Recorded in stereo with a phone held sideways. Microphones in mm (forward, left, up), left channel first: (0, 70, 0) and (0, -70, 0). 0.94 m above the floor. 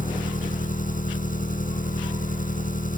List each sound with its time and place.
0.0 s an engine running: 70° left (ahead or behind)